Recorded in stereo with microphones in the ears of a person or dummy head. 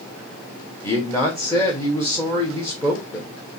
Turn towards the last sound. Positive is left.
turn(degrees=20)  # may be behind; listen again after turning